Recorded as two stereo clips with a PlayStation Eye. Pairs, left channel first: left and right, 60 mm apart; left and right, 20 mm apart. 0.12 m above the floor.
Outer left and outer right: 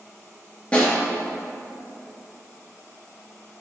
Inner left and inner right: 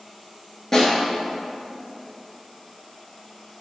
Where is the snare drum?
20° left (ahead or behind), 2.5 m.